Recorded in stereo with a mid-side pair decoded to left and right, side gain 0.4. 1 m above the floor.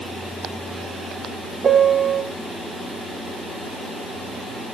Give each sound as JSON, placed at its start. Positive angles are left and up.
{"t": 1.6, "sound": "a piano", "azimuth_deg": -45, "distance_m": 2.5}